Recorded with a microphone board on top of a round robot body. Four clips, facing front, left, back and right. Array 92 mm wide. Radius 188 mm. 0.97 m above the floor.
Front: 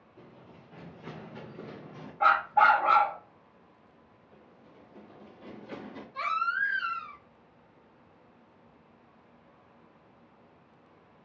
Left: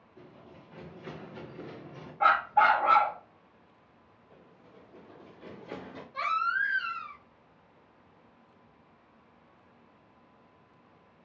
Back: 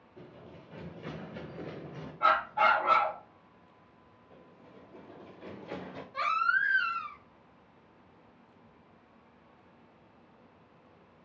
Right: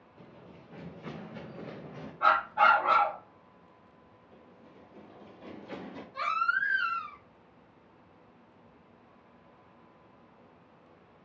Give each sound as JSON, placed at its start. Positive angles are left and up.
{"t": 0.2, "sound": "running footsteps", "azimuth_deg": 175, "distance_m": 1.7}
{"t": 2.2, "sound": "a dog barking", "azimuth_deg": 50, "distance_m": 0.7}
{"t": 4.3, "sound": "running footsteps", "azimuth_deg": 135, "distance_m": 2.0}
{"t": 6.1, "sound": "a baby crying", "azimuth_deg": 175, "distance_m": 1.8}